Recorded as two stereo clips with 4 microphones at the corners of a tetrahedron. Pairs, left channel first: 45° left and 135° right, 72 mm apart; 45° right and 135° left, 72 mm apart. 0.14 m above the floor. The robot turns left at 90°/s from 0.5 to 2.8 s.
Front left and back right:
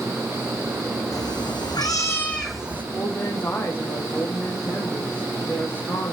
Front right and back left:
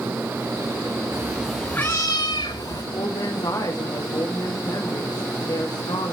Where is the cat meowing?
80° left, 3.5 m; by 2.8 s 70° right, 3.5 m.